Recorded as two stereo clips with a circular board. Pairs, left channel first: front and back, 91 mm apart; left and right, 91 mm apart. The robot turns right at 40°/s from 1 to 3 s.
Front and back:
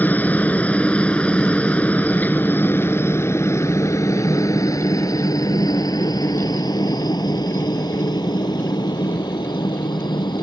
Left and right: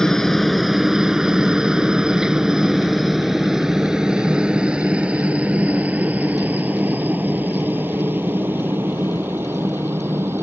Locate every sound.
0.0 s a helicopter: 15° left; by 10.4 s 30° right